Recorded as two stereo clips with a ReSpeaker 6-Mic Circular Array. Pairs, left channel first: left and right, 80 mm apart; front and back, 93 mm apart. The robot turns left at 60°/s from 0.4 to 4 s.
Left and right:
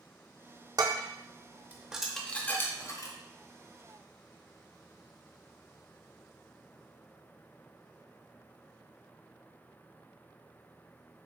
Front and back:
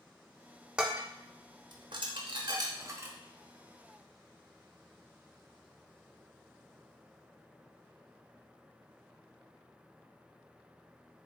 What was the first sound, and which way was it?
Dishes clattering, 100° right.